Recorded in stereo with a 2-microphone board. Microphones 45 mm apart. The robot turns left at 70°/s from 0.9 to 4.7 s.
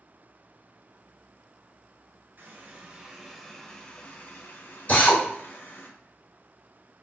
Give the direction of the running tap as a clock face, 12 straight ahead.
3 o'clock.